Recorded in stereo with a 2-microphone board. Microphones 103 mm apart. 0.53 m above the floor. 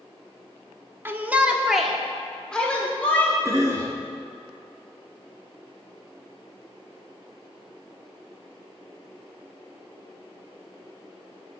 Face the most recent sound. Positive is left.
turn(degrees=-30)  # may be behind; listen again after turning